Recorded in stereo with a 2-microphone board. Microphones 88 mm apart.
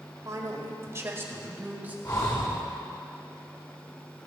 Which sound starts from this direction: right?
A man speaking, at 0.2 s.